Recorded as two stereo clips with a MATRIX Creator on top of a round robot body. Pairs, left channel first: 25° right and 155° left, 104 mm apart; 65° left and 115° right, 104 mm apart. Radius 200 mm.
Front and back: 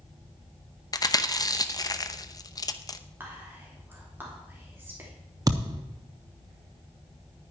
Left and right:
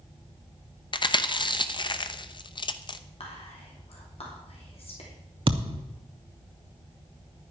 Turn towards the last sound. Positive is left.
turn(degrees=-150)